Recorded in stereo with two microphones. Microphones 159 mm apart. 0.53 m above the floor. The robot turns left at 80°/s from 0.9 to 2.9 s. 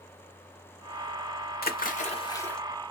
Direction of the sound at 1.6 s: 85° left.